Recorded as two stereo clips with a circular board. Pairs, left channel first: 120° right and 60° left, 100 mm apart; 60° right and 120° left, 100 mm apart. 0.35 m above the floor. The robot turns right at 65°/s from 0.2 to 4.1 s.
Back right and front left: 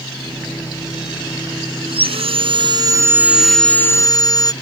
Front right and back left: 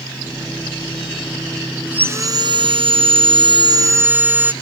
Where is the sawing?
45° left; by 4.5 s 170° right.